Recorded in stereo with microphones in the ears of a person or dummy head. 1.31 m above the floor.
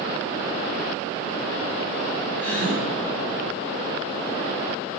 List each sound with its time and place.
2.4 s a gasp: 10° left (ahead or behind), 7 m